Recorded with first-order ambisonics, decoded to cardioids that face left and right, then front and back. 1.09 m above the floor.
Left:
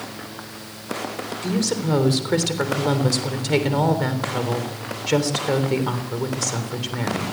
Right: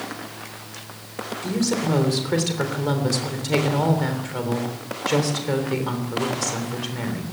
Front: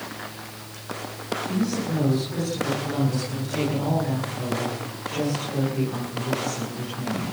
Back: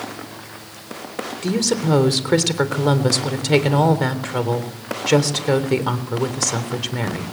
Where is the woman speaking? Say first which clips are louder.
Even, back 10 dB; 170° left, 3.5 m.